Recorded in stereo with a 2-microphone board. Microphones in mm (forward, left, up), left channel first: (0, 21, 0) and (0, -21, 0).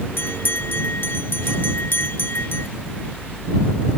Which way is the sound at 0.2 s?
60° left (ahead or behind).